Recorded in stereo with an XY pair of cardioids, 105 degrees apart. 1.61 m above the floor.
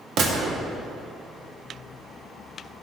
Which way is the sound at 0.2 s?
70° right.